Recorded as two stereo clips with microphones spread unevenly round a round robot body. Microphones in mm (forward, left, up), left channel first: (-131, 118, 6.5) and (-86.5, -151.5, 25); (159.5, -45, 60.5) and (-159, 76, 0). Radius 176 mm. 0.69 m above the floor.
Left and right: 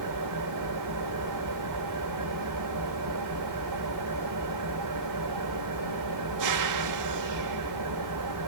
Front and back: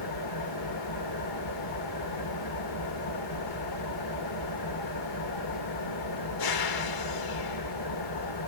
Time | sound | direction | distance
0.0 | an engine running | 50° right | 2 m